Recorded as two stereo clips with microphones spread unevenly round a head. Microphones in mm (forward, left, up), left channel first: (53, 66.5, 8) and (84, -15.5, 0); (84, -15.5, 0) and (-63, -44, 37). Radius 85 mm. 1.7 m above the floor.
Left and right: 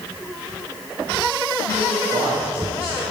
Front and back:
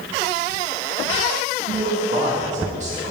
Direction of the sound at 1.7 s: 130° right.